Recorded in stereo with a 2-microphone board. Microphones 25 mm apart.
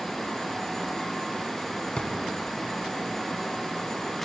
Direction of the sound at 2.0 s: 40° left (ahead or behind).